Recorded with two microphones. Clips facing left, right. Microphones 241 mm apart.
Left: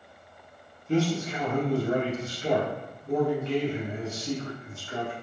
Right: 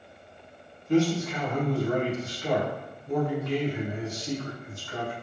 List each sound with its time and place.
0.9 s a man speaking: 30° left (ahead or behind), 0.6 m